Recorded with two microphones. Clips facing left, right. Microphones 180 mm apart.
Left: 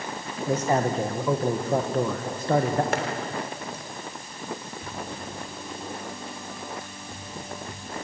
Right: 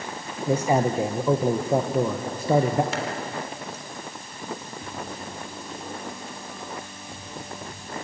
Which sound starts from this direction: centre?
A man speaking, at 0.5 s.